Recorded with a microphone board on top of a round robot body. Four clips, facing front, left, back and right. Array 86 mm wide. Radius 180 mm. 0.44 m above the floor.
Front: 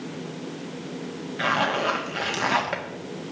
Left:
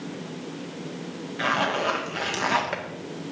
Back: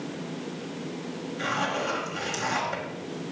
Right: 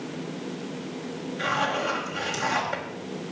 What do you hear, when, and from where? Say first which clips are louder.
1.4 s a zipper: left 2 dB, front 5 dB; 40° left, 1.7 m